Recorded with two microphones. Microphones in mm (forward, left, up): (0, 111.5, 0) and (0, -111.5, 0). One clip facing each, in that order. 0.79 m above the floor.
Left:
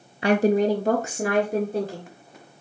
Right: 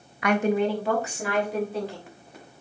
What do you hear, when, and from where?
0.2 s a woman speaking: 30° left (ahead or behind), 0.5 m; by 2.1 s 50° left (ahead or behind), 2.0 m